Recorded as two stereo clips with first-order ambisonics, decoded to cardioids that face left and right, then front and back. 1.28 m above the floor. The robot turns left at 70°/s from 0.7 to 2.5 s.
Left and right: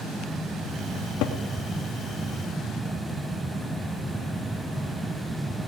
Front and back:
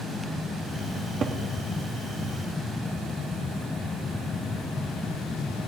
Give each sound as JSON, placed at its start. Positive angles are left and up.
{"t": 0.9, "sound": "a cupboard door", "azimuth_deg": 135, "distance_m": 1.7}